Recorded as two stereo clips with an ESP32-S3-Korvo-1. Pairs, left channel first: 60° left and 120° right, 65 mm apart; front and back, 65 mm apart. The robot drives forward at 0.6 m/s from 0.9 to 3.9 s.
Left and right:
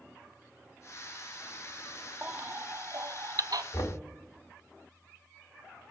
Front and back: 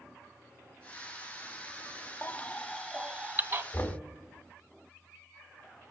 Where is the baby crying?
55° right, 0.7 m; by 3.6 s 135° right, 0.8 m.